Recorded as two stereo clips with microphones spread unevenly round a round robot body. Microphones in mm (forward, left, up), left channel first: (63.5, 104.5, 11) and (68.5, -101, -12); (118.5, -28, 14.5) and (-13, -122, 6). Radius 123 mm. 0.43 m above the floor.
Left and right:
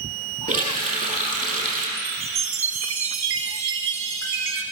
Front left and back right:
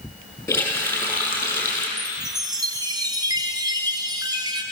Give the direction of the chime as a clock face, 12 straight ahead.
3 o'clock.